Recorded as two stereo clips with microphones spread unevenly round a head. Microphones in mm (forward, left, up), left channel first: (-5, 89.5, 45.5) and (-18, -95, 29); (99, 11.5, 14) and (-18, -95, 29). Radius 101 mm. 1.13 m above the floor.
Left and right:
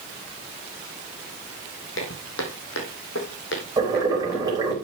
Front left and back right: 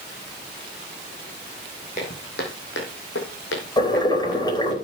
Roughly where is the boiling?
Ahead.